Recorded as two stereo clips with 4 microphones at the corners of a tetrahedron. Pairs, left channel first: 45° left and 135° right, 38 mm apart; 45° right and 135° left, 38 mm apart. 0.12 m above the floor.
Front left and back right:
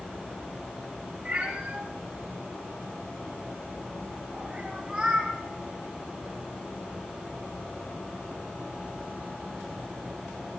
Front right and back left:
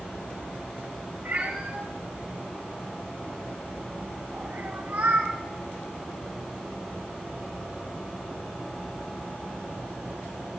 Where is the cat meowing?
170° left, 5 m; by 5.3 s 145° left, 8.5 m.